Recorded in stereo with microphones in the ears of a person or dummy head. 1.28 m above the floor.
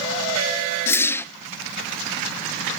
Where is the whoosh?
10° left (ahead or behind), 0.8 m.